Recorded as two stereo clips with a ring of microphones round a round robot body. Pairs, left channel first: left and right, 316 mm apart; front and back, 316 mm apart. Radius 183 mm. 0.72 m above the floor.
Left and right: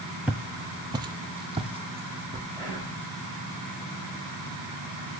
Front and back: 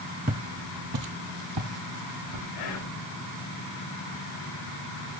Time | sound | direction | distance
0.3 | footsteps | 170° right | 0.7 m
2.5 | whispering | 5° left | 3.5 m